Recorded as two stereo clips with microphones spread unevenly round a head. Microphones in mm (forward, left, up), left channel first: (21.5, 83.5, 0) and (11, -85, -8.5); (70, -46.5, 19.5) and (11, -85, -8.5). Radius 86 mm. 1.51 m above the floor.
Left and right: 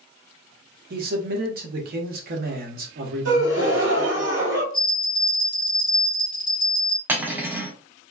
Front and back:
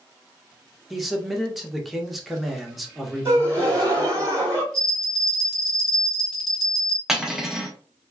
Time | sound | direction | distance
0.9 | a man speaking | 55° right | 1.0 m
3.2 | a gasp | 90° right | 2 m
4.7 | a bell | 35° right | 1.5 m
7.1 | cutlery clinking | 25° right | 0.7 m